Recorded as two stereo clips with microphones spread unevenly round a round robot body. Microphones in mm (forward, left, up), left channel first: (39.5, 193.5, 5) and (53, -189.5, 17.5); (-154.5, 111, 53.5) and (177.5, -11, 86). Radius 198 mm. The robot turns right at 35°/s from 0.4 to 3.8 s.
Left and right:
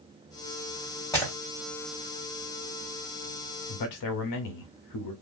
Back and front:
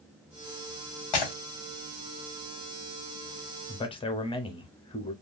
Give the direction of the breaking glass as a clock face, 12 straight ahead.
6 o'clock.